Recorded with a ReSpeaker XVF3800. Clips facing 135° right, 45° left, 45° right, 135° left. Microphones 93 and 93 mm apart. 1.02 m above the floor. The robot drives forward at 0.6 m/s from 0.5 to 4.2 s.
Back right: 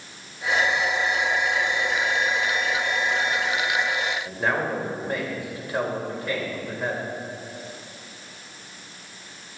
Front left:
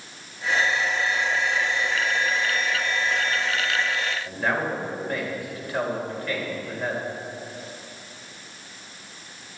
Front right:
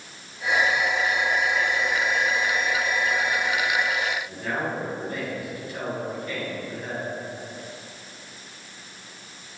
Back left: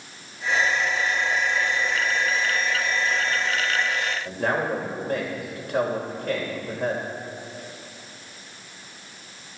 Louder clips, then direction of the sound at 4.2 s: Even, back left 4 dB; 155° left.